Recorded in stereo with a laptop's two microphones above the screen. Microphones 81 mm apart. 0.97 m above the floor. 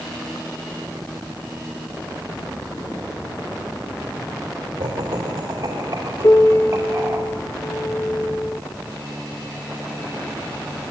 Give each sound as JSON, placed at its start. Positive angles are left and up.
{"t": 4.8, "sound": "laughter", "side_deg": -70, "distance_m": 2.5}
{"t": 6.2, "sound": "a piano", "side_deg": 40, "distance_m": 1.2}